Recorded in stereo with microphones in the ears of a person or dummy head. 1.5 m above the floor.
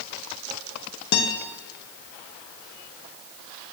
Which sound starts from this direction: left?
A guitar, at 1.1 s.